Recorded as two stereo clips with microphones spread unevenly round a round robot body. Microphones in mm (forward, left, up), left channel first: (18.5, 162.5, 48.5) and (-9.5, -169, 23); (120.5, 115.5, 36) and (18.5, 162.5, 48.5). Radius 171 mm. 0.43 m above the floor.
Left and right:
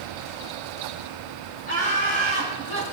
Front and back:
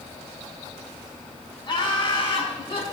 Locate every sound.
1.7 s laughter: 20° left, 4 m; by 2.8 s 10° left, 4.5 m